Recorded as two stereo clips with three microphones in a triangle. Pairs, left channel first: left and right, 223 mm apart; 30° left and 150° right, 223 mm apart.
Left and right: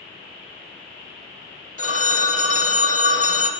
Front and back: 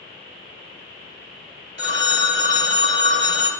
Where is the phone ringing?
140° right, 1.0 m.